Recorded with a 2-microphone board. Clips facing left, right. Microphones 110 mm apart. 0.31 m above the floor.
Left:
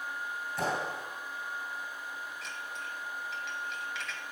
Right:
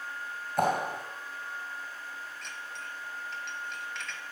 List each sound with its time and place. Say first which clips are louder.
0.6 s a clap: right 6 dB; 55° right (ahead or behind), 2 m
2.4 s dishes clattering: left 1 dB; 5° left (ahead or behind), 1.4 m